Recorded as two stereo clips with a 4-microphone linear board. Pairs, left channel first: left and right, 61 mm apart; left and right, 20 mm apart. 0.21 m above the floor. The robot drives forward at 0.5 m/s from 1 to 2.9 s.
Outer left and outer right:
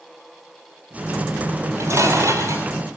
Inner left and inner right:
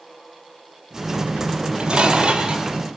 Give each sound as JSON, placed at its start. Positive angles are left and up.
{"t": 1.6, "sound": "dishes clattering", "side_deg": -65, "distance_m": 3.0}